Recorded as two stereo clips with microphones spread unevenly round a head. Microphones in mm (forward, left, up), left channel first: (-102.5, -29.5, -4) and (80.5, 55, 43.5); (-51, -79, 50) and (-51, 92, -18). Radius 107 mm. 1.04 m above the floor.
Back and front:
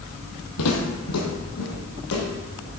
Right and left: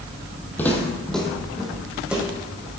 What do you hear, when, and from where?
0.6 s footsteps: 150° right, 1.8 m; by 2.7 s straight behind, 3 m